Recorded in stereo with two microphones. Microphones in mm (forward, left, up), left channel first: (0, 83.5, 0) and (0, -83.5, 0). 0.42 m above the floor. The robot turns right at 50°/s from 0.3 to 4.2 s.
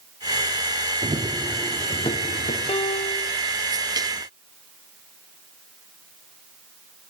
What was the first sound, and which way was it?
Running footsteps, 40° right (ahead or behind).